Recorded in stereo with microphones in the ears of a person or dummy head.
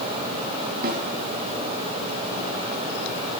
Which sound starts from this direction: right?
A snare drum, at 0.8 s.